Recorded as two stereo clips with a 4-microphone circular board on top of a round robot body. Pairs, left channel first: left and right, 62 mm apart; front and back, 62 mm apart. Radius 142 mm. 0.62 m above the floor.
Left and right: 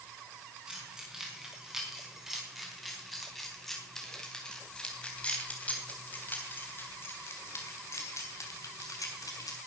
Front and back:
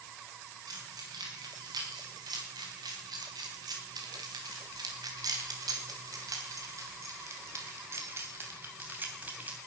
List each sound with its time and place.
0.7 s keys jangling: 165° right, 5 m; by 9.6 s 115° left, 3 m